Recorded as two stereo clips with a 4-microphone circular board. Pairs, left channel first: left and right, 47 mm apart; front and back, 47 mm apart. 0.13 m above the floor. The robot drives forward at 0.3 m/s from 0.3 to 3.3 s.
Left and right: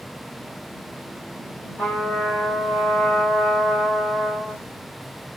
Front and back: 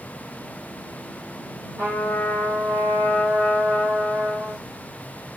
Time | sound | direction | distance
1.8 | a trumpet | 145° left | 2.5 m